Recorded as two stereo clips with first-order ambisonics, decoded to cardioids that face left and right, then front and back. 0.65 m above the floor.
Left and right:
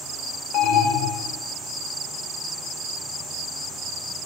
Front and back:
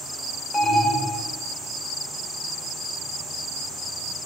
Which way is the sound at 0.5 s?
70° left.